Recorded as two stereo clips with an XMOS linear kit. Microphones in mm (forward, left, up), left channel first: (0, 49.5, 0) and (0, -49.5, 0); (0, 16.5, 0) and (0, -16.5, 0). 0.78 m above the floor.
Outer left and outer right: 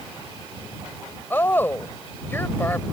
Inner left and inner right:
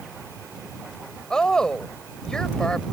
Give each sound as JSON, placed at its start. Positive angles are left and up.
{"t": 1.3, "sound": "a woman speaking", "side_deg": 20}